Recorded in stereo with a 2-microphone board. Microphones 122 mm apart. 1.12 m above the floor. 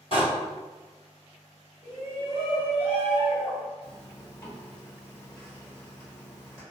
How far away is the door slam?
About 1.4 m.